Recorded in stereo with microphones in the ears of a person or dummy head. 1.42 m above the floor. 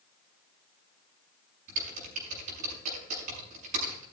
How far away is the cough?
I don't hear a cough.